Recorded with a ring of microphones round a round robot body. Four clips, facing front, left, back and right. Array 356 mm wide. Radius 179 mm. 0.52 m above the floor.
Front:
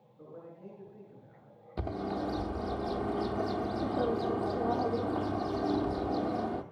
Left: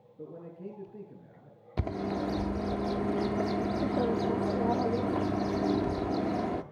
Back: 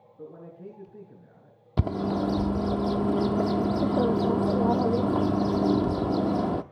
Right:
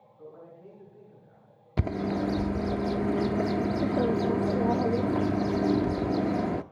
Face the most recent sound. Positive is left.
turn(degrees=-155)